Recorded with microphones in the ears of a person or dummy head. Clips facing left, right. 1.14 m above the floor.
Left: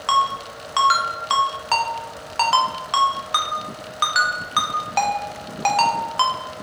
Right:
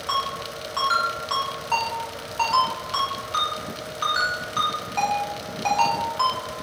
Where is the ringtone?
75° left (ahead or behind), 0.6 m.